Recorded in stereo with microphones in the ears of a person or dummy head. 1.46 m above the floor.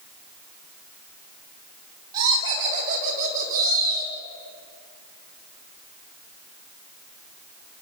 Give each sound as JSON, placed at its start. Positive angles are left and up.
{"t": 2.1, "sound": "laughter", "side_deg": -20, "distance_m": 3.5}